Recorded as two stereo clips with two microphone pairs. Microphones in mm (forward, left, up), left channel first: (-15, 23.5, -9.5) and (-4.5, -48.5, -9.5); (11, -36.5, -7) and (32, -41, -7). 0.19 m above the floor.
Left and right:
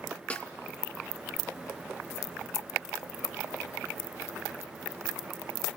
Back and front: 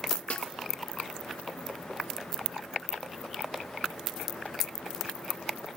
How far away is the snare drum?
About 0.7 m.